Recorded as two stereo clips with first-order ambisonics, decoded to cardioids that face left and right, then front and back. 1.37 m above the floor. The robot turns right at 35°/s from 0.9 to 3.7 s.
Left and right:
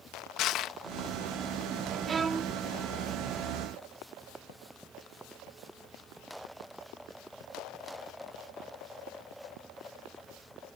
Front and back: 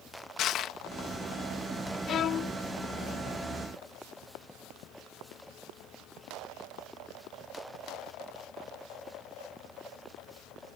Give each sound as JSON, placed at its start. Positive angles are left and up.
{"t": 0.4, "sound": "crushing", "azimuth_deg": 50}
{"t": 2.1, "sound": "a violin", "azimuth_deg": -35}